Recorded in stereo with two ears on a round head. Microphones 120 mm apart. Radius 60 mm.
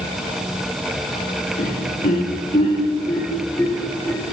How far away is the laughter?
About 2.5 m.